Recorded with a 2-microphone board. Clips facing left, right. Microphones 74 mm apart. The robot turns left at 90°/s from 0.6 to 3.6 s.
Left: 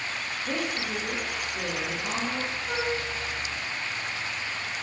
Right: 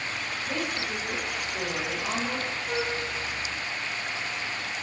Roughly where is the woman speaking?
Ahead left.